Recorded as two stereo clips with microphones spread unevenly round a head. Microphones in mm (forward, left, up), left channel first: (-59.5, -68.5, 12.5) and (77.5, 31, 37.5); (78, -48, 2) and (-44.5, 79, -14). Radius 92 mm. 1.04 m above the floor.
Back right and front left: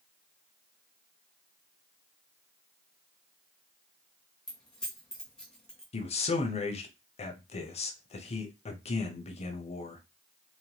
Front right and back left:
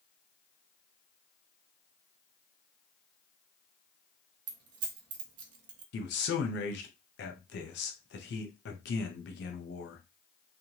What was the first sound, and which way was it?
Keys jangling, 130° left.